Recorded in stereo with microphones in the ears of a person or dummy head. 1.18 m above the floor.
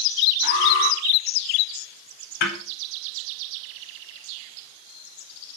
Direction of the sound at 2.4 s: 55° left (ahead or behind).